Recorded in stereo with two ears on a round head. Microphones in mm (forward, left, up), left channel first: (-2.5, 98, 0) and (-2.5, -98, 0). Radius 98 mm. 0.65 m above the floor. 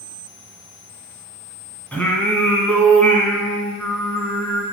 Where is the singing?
5° left (ahead or behind), 2.0 m.